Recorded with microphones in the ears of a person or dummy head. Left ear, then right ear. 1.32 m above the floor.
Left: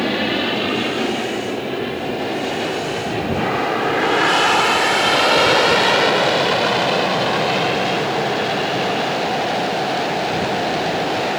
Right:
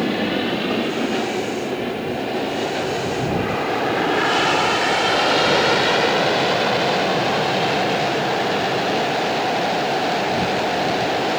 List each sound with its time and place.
0.0 s an aircraft: 30° left (ahead or behind); by 11.4 s 25° left (ahead or behind)